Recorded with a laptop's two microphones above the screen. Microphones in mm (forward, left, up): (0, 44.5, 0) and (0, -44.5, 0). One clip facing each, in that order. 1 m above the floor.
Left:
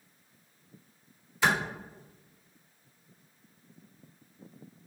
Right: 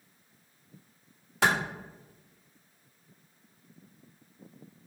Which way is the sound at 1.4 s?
75° right (ahead or behind).